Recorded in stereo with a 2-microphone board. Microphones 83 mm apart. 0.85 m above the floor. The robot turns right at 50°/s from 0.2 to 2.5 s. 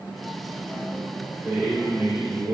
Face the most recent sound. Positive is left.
turn(degrees=-125)